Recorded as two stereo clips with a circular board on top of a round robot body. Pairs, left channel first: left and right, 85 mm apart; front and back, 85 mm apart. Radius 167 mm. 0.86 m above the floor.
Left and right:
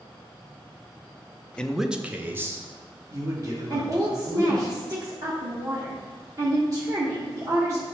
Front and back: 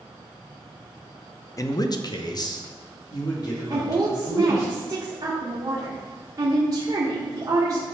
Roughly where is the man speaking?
Ahead.